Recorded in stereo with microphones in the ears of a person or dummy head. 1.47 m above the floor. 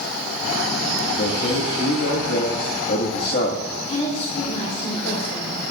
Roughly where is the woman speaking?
Left.